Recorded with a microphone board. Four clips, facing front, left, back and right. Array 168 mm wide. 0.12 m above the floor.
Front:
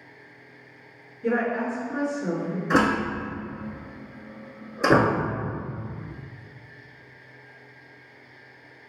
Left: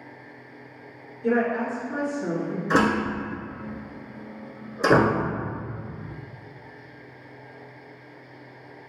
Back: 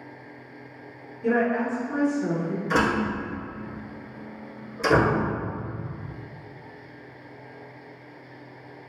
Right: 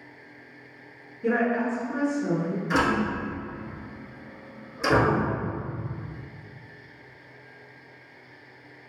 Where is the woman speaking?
105° right, 2.0 m; by 2.6 s 130° left, 2 m.